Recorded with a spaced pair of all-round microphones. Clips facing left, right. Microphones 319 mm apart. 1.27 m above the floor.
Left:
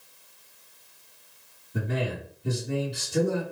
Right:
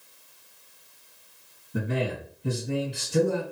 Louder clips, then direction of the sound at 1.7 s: Right 2 dB; 60° right (ahead or behind).